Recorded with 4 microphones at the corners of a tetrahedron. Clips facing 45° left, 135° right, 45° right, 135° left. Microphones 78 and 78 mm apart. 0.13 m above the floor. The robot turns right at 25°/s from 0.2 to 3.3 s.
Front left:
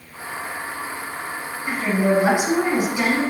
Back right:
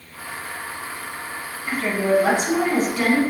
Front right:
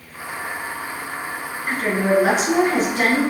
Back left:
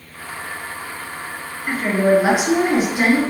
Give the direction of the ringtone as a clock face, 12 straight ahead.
I don't hear a ringtone.